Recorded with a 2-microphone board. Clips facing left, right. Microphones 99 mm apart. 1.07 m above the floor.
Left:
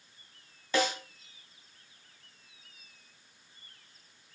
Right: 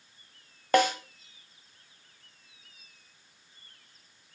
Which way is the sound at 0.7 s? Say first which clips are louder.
Right 6 dB; 55° right (ahead or behind).